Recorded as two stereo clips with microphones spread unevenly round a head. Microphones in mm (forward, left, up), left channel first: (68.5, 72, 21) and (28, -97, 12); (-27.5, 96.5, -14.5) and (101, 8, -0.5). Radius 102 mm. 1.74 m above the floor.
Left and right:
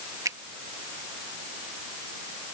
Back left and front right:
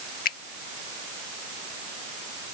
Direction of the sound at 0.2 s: Straight behind.